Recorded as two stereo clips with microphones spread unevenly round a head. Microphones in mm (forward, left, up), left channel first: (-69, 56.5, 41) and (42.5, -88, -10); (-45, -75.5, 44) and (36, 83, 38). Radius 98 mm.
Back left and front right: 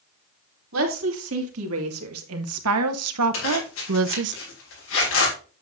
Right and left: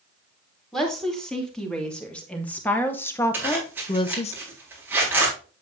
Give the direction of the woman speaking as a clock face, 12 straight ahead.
1 o'clock.